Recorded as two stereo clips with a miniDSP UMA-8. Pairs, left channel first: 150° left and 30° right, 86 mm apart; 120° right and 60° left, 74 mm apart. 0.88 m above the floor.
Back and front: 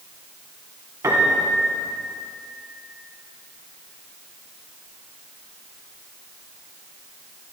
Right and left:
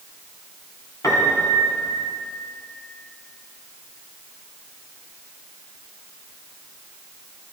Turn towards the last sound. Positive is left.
turn(degrees=-85)